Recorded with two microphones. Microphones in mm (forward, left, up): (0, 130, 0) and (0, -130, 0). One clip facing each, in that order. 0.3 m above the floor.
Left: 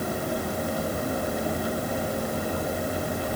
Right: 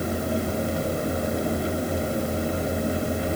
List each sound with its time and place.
Only background noise.